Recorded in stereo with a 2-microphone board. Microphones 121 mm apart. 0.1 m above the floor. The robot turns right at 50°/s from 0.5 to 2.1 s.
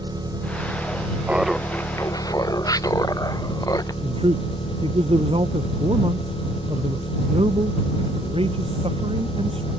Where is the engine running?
35° right; by 9.8 s 45° left.